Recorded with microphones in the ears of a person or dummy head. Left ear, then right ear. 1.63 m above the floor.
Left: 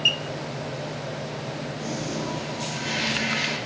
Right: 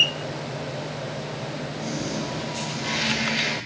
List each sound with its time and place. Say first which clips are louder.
1.8 s a toilet flushing: right 2 dB; 30° left (ahead or behind), 4 m